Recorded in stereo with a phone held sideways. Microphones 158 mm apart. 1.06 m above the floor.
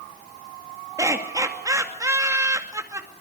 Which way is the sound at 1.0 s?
20° right (ahead or behind).